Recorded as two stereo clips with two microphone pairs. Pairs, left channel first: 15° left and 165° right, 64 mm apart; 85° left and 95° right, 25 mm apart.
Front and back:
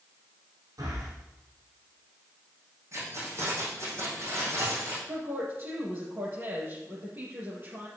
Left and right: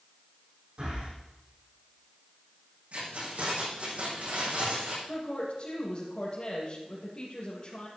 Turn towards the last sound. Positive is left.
turn(degrees=140)